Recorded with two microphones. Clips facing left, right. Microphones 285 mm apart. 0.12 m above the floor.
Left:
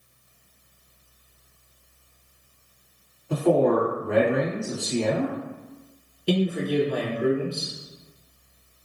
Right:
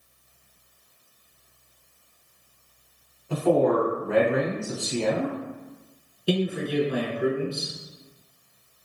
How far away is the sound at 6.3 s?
About 1.0 m.